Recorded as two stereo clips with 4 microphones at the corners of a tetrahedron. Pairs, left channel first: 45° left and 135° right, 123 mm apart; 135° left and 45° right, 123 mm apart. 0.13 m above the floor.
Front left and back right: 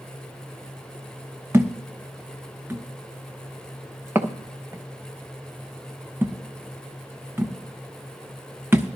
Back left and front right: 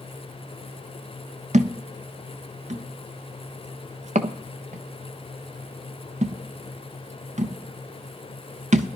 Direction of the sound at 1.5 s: 65° right.